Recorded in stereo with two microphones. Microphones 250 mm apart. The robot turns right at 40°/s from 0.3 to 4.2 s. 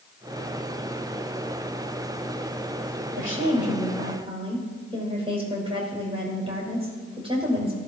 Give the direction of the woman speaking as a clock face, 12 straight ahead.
2 o'clock.